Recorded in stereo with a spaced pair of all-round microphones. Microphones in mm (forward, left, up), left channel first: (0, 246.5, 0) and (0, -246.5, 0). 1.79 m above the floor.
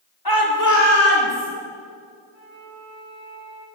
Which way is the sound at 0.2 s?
50° left (ahead or behind).